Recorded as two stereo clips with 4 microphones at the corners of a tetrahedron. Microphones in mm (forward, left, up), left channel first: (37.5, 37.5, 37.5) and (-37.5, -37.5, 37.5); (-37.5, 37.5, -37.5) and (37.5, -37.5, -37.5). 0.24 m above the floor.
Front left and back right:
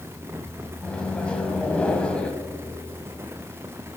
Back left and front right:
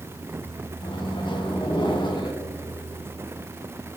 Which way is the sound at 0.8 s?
120° left.